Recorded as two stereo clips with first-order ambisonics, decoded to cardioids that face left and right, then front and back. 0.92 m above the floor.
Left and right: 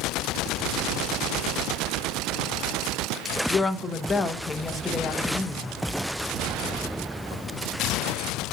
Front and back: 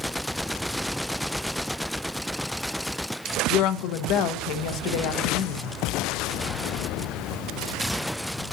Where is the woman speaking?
15° left, 0.7 m.